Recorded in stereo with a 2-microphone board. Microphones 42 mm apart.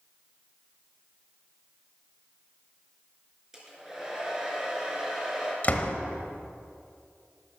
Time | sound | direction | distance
3.5 | a hair dryer | 10° right (ahead or behind) | 4 m
5.6 | a door slam | 40° left (ahead or behind) | 1.1 m